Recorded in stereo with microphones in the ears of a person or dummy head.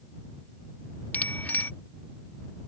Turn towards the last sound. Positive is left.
turn(degrees=15)  # may be behind; listen again after turning